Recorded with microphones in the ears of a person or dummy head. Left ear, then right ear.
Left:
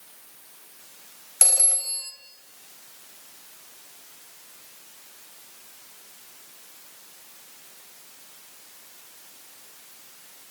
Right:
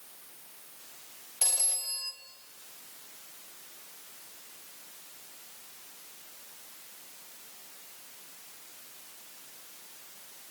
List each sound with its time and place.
1.4 s a phone ringing: 55° left (ahead or behind), 3 m